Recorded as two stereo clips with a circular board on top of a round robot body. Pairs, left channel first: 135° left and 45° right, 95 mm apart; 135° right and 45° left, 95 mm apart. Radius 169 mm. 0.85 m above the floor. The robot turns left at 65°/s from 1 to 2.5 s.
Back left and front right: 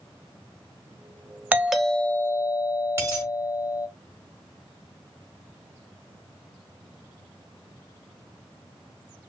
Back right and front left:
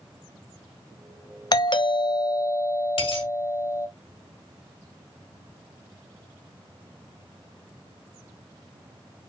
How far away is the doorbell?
About 1.3 m.